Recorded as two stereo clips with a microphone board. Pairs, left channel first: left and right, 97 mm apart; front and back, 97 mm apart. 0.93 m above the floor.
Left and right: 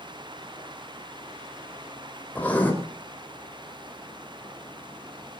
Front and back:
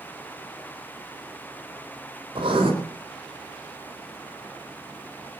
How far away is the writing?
About 4 m.